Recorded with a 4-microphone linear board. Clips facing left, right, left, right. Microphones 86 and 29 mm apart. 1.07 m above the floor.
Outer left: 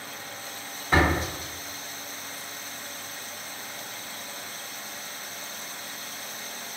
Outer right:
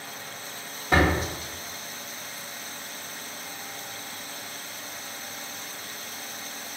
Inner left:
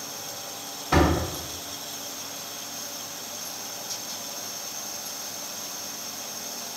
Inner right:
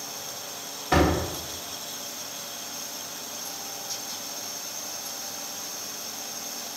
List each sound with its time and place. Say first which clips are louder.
0.9 s a door slam: outer right 1 dB, even; 80° right, 1.3 m